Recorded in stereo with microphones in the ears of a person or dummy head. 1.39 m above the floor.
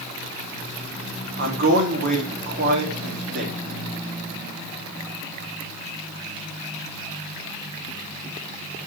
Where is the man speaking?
55° right (ahead or behind), 3.5 m.